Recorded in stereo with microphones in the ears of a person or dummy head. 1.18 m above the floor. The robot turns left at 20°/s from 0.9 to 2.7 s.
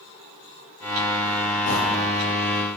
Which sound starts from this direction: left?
A sliding door, at 1.7 s.